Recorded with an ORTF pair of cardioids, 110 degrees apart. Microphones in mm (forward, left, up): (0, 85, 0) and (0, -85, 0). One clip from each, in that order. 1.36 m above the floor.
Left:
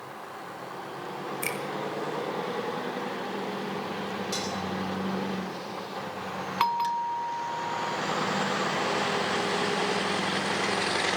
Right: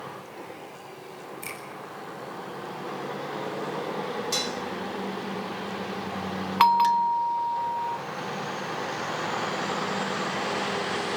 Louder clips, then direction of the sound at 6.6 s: Right 7 dB; 25° right.